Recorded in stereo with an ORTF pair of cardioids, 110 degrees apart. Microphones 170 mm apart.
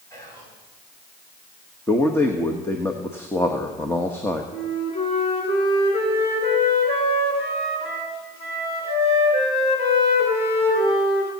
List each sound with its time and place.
0.1 s whispering: 20° left, 8 m
1.9 s a man speaking: 15° left, 1.3 m
4.5 s a flute: 35° left, 4 m